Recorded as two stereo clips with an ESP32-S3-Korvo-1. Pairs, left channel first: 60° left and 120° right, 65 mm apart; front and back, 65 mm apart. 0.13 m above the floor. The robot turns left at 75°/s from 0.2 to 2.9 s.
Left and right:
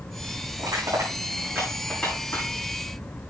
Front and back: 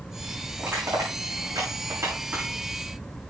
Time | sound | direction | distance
0.6 | crushing | 115° right | 7 m